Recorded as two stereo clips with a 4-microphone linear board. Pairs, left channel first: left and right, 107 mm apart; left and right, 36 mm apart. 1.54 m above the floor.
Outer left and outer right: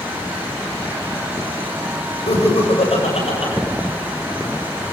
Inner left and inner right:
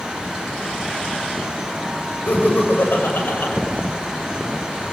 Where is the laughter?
60° left (ahead or behind), 7 m; by 3.5 s 70° left (ahead or behind), 7 m.